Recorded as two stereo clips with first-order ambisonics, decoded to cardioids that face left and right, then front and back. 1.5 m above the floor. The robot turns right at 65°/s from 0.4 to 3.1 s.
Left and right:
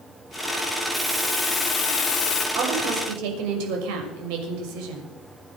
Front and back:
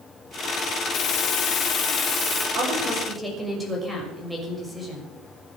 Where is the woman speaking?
130° right, 6 m; by 5.0 s 95° right, 6 m.